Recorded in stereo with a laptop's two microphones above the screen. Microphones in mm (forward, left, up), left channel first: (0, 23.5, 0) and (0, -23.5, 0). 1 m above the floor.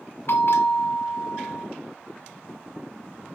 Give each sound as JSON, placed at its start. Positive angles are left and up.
{"t": 0.3, "sound": "a bell", "side_deg": 60, "distance_m": 1.0}